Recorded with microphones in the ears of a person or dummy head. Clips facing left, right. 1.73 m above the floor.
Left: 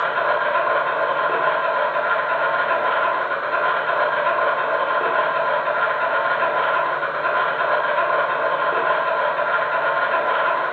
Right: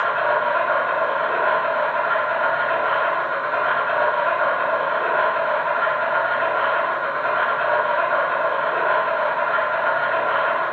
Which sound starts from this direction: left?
An insect, at 0.0 s.